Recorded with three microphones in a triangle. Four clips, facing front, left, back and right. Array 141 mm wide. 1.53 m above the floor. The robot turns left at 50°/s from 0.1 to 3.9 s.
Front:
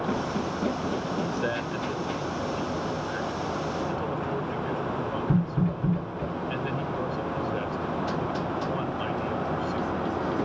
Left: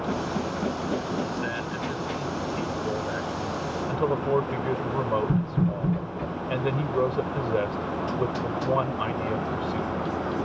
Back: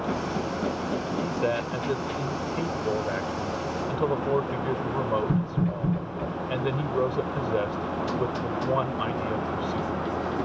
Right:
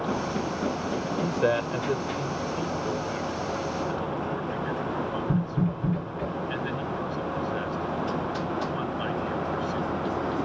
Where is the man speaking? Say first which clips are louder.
Right 5 dB, back 2 dB; 100° right; by 10.0 s 125° left.